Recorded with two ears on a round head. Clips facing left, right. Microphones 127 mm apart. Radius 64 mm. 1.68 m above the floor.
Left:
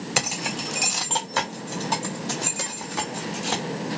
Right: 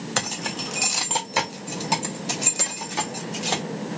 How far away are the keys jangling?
About 0.5 m.